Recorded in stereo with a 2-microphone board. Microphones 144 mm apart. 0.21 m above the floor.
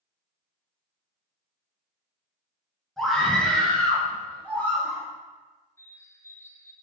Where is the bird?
20° left (ahead or behind), 1.1 m.